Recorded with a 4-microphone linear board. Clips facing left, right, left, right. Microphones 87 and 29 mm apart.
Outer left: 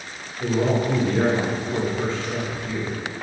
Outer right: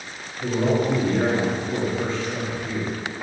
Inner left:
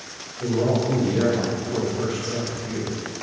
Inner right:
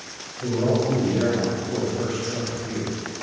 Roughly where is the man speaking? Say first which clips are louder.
Even, even; left.